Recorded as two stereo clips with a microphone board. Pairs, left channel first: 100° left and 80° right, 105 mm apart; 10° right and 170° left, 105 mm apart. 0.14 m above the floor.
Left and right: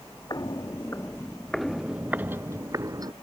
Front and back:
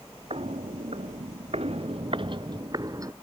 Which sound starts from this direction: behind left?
Footsteps, at 0.3 s.